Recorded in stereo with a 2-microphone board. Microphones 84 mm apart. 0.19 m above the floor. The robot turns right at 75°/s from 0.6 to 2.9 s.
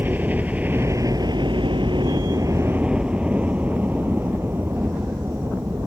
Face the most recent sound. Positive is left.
turn(degrees=-35)  # may be behind; listen again after turning